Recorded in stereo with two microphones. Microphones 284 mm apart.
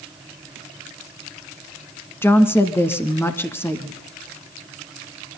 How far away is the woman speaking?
About 1.3 m.